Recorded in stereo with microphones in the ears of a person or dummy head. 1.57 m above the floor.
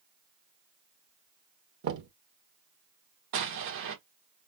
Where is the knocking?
60° right (ahead or behind), 0.9 m.